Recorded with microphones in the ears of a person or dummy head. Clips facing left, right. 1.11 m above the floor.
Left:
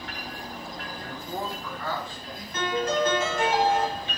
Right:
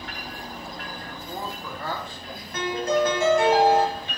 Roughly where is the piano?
Right.